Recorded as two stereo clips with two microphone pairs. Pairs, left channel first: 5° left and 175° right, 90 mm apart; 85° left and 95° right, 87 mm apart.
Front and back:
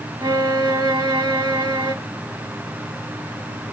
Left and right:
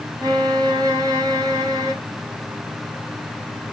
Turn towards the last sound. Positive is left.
turn(degrees=-145)